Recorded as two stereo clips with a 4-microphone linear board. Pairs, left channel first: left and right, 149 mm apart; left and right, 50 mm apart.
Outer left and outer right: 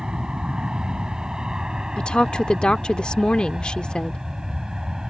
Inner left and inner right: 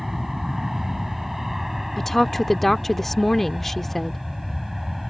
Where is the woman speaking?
5° left (ahead or behind).